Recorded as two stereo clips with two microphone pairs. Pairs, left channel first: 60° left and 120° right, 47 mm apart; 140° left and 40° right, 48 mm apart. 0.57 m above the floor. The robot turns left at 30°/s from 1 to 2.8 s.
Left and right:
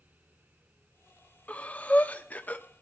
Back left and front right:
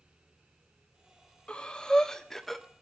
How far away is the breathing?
About 0.8 m.